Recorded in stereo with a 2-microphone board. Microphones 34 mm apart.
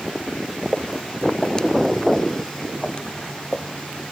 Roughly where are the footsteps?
Left.